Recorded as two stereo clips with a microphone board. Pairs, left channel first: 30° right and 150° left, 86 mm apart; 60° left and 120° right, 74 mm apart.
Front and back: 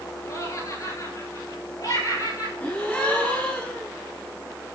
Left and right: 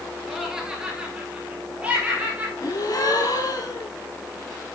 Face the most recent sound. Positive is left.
turn(degrees=40)